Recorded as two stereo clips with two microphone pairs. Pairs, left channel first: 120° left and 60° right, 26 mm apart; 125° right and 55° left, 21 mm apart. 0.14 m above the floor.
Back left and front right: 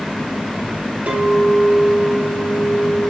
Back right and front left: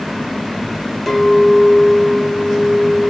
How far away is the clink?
About 1.7 m.